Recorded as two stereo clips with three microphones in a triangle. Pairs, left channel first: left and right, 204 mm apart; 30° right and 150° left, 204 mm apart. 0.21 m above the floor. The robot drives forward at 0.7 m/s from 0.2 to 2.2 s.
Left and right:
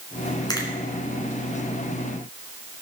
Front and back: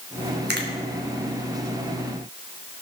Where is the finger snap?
155° left, 2.5 m; by 0.7 s 160° left, 2.5 m.